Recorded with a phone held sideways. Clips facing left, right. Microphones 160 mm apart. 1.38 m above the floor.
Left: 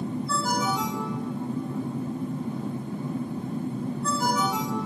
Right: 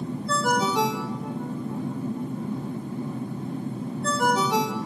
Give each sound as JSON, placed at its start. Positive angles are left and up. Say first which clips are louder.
{"t": 0.3, "sound": "a ringtone", "louder": "right 5 dB", "side_deg": -75, "distance_m": 1.2}